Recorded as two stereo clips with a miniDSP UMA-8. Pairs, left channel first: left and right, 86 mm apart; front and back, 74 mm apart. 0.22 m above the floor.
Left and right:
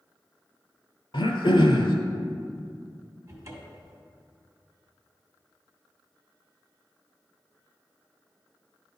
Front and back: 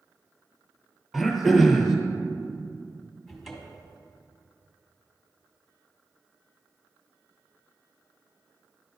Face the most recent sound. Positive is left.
turn(degrees=-90)